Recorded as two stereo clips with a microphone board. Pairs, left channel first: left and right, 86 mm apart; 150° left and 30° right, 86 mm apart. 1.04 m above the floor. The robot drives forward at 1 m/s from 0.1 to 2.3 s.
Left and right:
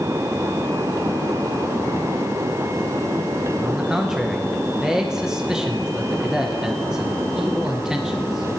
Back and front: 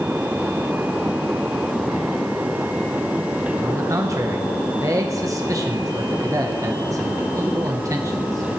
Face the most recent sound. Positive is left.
turn(degrees=-10)